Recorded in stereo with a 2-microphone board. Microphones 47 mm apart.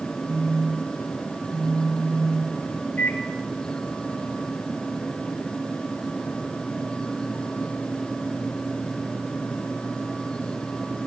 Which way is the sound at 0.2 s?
85° right.